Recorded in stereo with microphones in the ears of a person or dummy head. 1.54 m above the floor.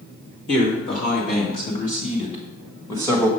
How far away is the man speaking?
About 3 m.